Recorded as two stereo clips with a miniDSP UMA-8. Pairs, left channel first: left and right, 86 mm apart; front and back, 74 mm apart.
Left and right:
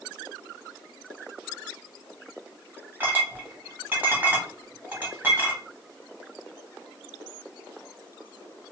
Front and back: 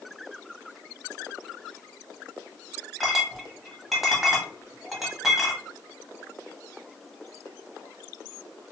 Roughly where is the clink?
Right.